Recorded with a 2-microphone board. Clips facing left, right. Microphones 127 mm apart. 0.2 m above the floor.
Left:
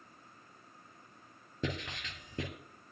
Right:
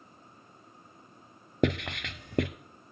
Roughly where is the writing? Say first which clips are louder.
Right 10 dB; right.